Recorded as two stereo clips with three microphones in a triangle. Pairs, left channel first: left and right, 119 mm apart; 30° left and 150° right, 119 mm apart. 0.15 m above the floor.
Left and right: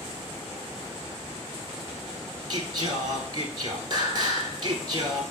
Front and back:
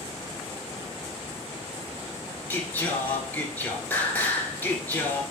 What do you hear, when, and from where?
2.5 s singing: 45° right, 1.2 m